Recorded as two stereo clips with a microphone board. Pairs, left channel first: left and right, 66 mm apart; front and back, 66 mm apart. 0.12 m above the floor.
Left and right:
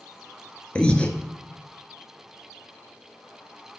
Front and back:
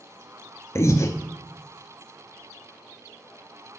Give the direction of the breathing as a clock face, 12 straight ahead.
11 o'clock.